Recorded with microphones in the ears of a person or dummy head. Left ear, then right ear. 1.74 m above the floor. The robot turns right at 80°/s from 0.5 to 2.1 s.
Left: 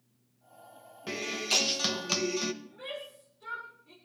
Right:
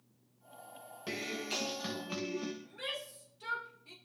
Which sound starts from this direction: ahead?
A guitar, at 1.1 s.